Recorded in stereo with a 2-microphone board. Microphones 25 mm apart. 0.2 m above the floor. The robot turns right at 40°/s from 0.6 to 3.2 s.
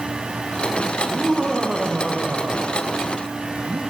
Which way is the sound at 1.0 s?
165° right.